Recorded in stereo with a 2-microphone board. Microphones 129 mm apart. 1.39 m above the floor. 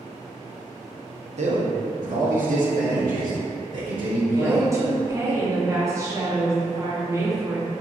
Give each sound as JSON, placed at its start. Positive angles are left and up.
{"t": 1.4, "sound": "a man speaking", "side_deg": -60, "distance_m": 0.6}
{"t": 4.3, "sound": "a woman speaking", "side_deg": -20, "distance_m": 0.7}